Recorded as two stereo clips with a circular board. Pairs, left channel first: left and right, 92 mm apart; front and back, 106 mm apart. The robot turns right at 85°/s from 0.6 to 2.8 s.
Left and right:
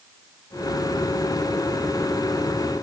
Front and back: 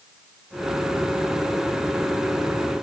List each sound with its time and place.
Only background noise.